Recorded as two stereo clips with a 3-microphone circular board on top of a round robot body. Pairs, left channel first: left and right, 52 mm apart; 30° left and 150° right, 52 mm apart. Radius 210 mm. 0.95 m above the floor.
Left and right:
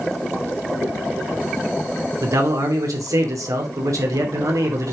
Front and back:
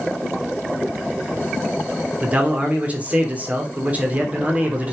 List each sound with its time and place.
2.2 s a man speaking: 85° right, 3 m